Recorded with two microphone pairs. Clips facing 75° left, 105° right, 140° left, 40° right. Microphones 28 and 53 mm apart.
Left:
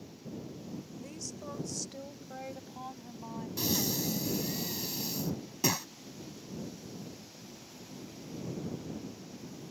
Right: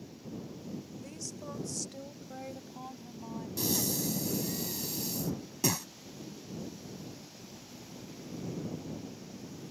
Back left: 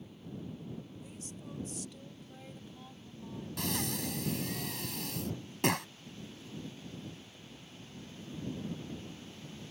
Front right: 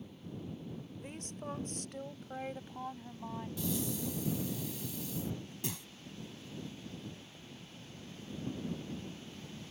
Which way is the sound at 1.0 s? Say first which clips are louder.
Even, front right 3 dB; 15° right.